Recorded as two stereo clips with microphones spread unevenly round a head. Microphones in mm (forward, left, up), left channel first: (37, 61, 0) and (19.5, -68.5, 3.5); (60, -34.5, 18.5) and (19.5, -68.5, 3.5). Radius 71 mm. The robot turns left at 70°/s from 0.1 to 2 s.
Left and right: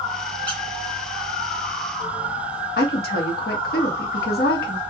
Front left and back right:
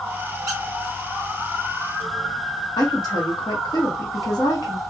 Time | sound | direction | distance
0.5 | a squeak | 165° left | 1.5 m
2.8 | a woman speaking | 75° left | 1.5 m